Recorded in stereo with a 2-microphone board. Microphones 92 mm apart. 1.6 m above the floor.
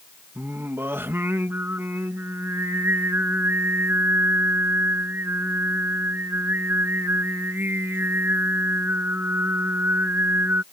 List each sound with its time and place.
0.3 s singing: 25° right (ahead or behind)